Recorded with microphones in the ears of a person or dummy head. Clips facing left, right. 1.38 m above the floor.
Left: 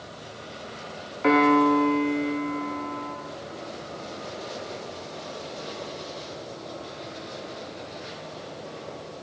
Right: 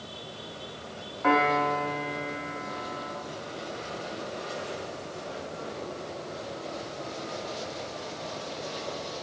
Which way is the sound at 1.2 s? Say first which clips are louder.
Left 6 dB; 30° left (ahead or behind).